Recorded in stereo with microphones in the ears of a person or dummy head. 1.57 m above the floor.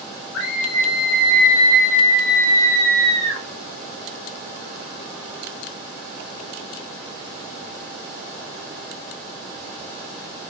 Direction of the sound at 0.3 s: 80° left.